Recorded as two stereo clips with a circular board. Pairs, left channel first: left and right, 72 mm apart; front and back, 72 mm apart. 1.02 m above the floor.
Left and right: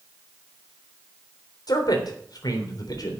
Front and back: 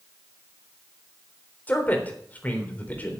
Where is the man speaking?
65° left, 3.5 m.